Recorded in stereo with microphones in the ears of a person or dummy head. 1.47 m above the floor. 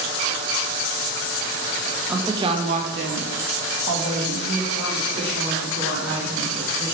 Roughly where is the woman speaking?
Centre.